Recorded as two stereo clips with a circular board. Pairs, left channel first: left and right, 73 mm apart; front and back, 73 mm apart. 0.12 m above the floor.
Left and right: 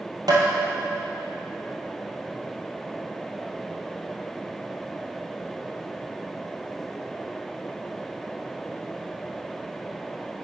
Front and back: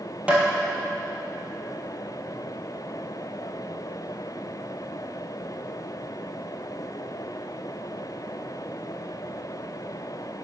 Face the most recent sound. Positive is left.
turn(degrees=-105)